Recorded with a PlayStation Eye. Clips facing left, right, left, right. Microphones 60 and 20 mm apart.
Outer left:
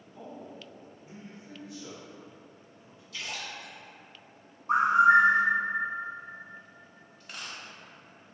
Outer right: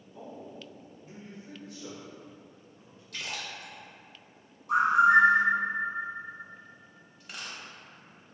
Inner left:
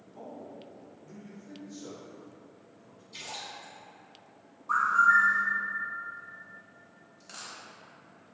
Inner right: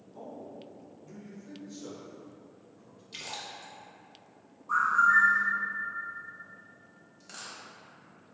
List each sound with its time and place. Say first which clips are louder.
0.1 s a man speaking: even, even; 20° right (ahead or behind), 1.9 m; by 3.0 s 50° right (ahead or behind), 3.5 m
3.1 s a splash: even, even; 55° right (ahead or behind), 0.8 m
4.7 s a bird: outer left 1 dB, inner left 1 dB; 35° left (ahead or behind), 0.6 m
7.2 s a dropped coin: even, even; 5° right (ahead or behind), 0.7 m